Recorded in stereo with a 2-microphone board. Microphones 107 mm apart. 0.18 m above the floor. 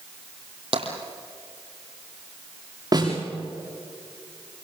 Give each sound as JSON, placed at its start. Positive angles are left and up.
{"t": 0.7, "sound": "tapping", "side_deg": -60, "distance_m": 4.0}
{"t": 2.9, "sound": "a snare drum", "side_deg": -35, "distance_m": 9.0}